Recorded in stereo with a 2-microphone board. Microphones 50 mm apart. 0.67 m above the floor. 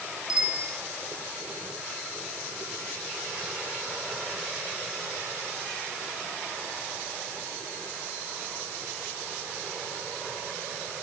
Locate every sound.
0.3 s a bicycle bell: 20° right (ahead or behind), 8 m